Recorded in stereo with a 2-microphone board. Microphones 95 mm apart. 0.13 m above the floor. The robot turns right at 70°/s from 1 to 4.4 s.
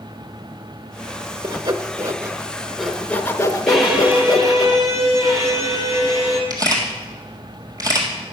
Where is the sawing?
45° right (ahead or behind), 0.6 m; by 4.7 s 40° left (ahead or behind), 0.6 m.